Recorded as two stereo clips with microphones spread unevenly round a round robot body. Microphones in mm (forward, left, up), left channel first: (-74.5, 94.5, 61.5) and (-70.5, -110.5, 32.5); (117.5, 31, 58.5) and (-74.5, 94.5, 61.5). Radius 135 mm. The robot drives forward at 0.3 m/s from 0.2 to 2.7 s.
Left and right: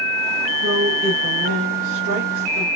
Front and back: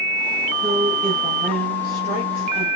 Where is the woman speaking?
110° right, 3.5 m; by 2.7 s 120° right, 3.5 m.